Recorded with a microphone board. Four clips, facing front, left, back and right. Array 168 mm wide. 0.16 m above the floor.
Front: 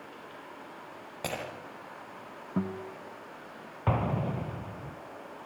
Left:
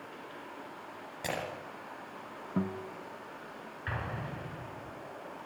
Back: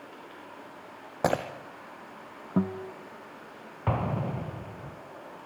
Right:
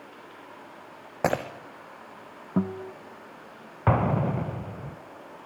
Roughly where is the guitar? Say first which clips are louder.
Right 6 dB, back 4 dB; behind right.